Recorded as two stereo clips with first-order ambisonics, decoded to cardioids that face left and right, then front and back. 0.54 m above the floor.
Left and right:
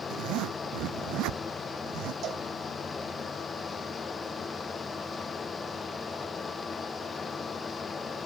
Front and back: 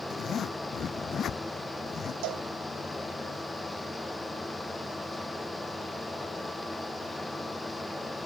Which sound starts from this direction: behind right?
A cowbell, at 2.2 s.